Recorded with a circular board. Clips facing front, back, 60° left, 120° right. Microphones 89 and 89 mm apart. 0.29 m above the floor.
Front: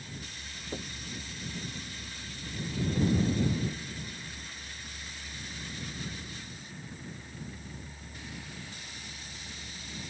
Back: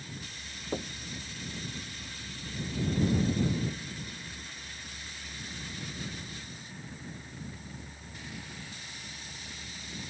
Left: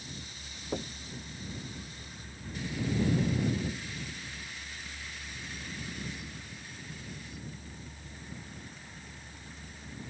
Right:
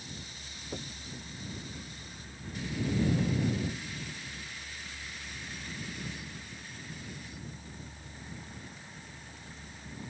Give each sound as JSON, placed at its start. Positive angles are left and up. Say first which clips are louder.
{"t": 0.7, "sound": "knocking", "louder": "back 5 dB, left 6 dB", "azimuth_deg": 120}